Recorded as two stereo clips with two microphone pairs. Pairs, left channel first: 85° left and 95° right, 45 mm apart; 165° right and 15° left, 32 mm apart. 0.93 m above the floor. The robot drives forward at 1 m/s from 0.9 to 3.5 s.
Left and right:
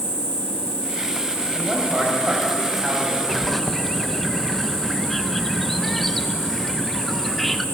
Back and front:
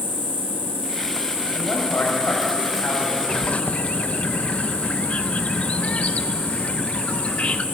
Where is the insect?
155° right, 5 m; by 7.8 s 165° right, 7.5 m.